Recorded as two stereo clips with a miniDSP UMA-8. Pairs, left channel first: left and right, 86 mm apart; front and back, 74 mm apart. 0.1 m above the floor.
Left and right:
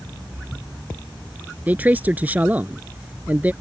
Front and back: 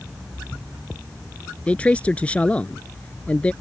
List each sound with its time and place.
1.7 s a man speaking: 45° right